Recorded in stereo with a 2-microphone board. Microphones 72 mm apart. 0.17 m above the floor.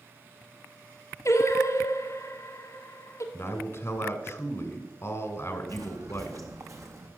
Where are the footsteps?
60° right (ahead or behind), 1.6 m; by 7.1 s 45° right (ahead or behind), 2 m.